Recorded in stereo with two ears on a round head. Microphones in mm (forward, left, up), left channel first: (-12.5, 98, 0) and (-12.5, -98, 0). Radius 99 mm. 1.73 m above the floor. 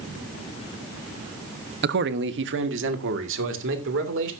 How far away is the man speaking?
About 0.9 m.